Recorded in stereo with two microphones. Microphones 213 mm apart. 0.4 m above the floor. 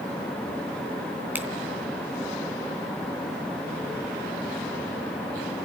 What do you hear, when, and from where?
1.4 s a finger snap: 10° right (ahead or behind), 3 m